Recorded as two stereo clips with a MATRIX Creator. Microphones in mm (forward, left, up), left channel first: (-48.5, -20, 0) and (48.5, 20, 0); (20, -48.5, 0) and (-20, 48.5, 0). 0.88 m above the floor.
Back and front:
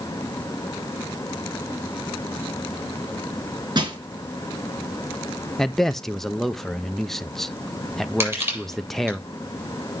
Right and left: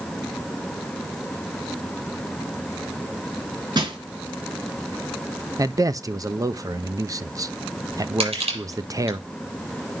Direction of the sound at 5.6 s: 115° left.